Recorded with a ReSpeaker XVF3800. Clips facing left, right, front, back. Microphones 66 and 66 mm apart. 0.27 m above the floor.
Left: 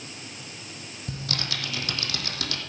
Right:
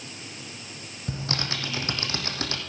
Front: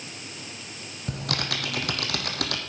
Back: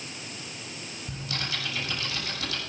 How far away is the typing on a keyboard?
About 2 m.